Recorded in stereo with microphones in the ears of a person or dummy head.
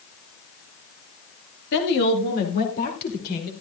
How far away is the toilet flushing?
I don't hear a toilet flushing.